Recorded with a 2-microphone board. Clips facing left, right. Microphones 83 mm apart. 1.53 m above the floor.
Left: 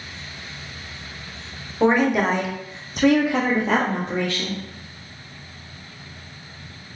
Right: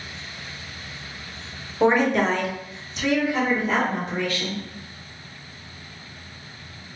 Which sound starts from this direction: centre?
A woman speaking, at 1.8 s.